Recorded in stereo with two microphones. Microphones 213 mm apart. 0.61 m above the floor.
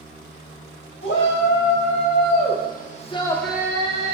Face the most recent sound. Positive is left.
turn(degrees=-35)  # may be behind; listen again after turning